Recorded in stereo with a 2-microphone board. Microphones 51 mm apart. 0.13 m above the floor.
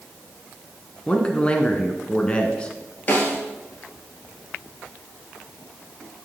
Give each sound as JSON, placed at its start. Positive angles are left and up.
{"t": 1.1, "sound": "a man speaking", "side_deg": 20, "distance_m": 1.2}
{"t": 3.1, "sound": "a snare drum", "side_deg": 35, "distance_m": 1.9}